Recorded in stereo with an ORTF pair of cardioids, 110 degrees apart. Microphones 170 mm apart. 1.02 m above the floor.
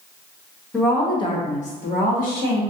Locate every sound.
0.7 s a woman speaking: 10° left, 1.0 m; by 2.6 s 70° left, 1.6 m